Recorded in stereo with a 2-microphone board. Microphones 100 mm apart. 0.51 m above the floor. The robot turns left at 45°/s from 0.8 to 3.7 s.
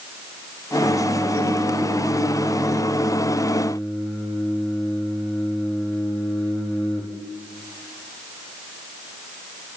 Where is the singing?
65° right, 8 m; by 7.0 s 165° left, 8 m.